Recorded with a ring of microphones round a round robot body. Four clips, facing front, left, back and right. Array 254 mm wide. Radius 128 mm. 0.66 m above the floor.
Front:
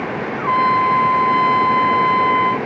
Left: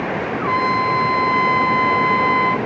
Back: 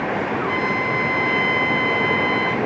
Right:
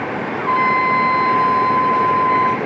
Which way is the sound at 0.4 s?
35° right.